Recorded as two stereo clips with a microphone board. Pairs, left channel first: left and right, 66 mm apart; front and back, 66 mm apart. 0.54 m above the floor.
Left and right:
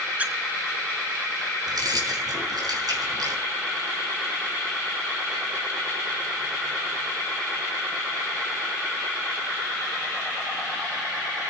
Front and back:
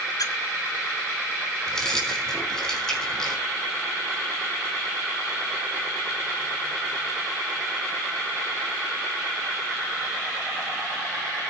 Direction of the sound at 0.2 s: 25° right.